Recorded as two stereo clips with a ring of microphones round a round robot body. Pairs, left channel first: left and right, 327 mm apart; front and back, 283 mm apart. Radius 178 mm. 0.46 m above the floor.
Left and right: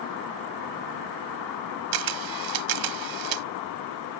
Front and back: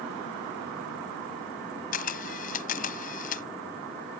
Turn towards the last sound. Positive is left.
turn(degrees=-65)